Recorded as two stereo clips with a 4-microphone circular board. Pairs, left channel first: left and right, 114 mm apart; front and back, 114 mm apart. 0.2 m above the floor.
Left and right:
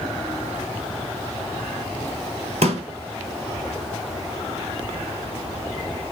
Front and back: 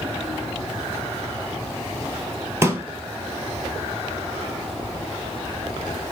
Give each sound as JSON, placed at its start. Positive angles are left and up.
{"t": 2.6, "sound": "a pop", "azimuth_deg": -110, "distance_m": 1.0}